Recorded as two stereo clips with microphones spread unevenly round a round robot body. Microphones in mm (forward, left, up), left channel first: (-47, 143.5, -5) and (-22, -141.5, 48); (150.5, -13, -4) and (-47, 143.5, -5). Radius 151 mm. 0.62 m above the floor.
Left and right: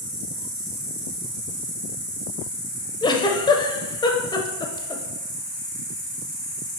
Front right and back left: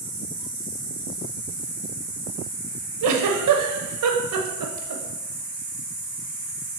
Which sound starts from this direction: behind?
A giggle, at 3.0 s.